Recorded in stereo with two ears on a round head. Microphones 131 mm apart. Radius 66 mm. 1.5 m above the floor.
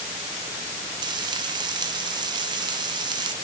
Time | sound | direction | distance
1.0 | frying | 30° right (ahead or behind) | 0.8 m